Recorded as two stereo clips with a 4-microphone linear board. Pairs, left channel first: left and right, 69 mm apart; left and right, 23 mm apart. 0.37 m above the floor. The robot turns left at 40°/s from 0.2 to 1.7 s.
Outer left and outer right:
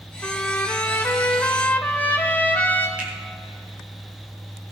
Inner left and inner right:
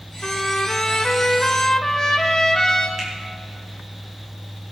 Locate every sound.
0.2 s a trumpet: 115° left, 1.3 m; by 2.9 s 55° left, 1.3 m
3.0 s a finger snap: 20° right (ahead or behind), 4.5 m